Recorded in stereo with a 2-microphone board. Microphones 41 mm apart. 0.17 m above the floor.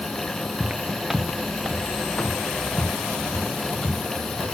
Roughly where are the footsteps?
Right.